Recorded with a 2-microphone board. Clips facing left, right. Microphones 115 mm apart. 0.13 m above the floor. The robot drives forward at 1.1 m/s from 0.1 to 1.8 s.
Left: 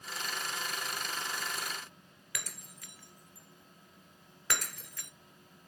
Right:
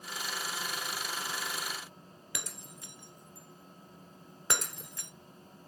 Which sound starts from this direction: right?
Breaking glass, at 2.4 s.